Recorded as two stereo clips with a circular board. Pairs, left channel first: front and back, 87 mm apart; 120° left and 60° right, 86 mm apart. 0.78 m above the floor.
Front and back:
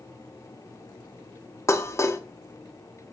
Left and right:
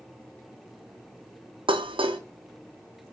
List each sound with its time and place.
1.7 s dishes clattering: 55° right, 0.9 m